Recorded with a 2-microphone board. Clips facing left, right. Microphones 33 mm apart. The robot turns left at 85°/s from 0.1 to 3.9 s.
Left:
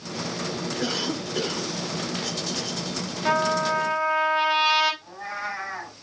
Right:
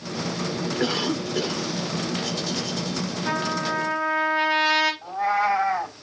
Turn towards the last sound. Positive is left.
turn(degrees=-90)